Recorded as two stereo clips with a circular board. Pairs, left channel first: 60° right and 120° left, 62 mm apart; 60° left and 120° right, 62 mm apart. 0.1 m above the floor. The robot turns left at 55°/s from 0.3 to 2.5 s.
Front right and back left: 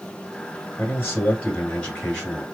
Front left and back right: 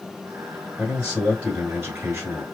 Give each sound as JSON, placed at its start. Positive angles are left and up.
{"t": 0.8, "sound": "a man speaking", "azimuth_deg": -50, "distance_m": 1.6}